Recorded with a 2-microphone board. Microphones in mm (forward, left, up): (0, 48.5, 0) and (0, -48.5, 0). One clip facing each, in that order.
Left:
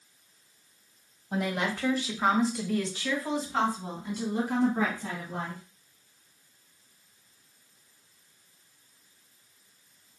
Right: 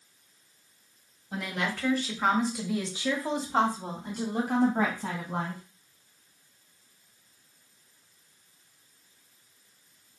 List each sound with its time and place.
1.3 s a woman speaking: 30° left (ahead or behind), 1.6 m; by 5.6 s 65° right (ahead or behind), 2.5 m